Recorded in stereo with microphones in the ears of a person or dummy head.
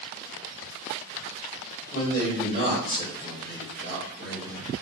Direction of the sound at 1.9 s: 55° left (ahead or behind).